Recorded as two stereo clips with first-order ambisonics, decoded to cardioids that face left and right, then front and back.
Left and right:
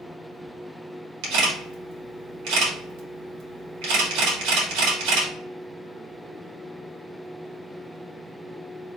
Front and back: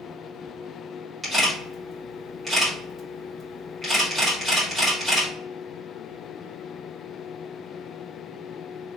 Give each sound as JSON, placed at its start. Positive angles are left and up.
{"t": 1.2, "sound": "a camera shutter", "azimuth_deg": -100, "distance_m": 2.0}